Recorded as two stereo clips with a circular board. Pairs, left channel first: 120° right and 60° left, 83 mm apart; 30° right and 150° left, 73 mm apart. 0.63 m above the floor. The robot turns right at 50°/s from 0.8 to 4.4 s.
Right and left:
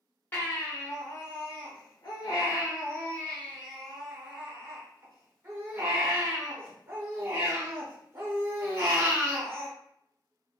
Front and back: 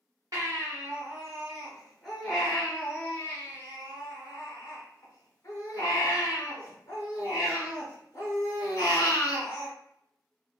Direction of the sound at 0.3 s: Straight behind.